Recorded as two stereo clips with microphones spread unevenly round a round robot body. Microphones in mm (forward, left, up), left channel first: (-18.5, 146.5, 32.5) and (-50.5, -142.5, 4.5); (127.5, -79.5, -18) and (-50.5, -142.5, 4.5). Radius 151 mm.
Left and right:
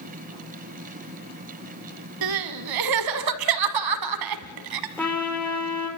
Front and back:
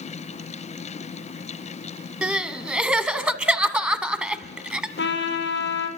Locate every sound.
2.2 s crying: 75° right, 1.4 m
5.0 s a trumpet: straight ahead, 4 m